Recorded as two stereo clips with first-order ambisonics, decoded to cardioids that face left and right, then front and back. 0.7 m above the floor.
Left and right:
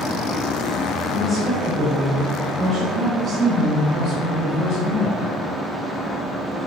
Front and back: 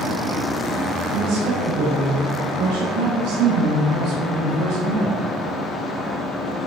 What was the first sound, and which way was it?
A woman speaking, 155° left.